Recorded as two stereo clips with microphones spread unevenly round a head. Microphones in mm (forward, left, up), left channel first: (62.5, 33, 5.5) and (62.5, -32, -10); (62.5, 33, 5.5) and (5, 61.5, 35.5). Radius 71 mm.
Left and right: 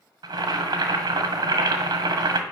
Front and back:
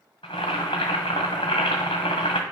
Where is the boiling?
80° right, 1.5 m.